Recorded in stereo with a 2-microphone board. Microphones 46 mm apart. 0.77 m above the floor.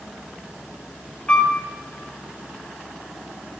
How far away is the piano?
About 2.5 m.